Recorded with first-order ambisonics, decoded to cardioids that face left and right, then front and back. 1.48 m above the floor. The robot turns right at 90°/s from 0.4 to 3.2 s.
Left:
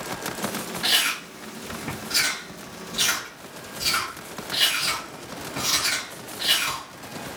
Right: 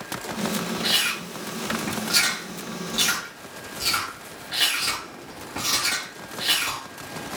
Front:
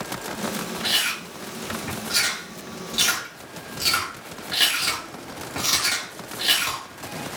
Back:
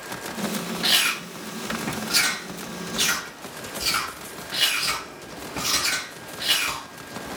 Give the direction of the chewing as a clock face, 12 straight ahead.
7 o'clock.